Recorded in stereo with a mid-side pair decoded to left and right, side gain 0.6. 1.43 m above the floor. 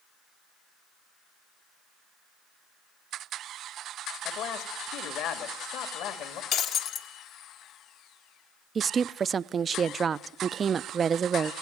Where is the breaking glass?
65° left, 1.7 m.